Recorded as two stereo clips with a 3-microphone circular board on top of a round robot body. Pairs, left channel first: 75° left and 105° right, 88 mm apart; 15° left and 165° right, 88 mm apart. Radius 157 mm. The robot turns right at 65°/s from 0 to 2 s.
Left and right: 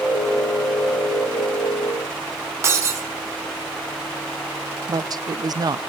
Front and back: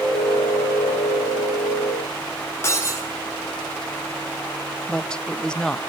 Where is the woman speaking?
65° right, 0.7 m.